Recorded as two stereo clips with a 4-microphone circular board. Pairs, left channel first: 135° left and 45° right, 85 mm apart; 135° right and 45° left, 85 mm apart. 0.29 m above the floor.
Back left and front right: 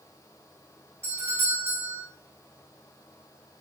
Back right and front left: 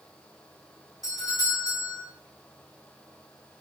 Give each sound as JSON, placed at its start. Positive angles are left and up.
{"t": 1.0, "sound": "a doorbell", "azimuth_deg": -95, "distance_m": 3.5}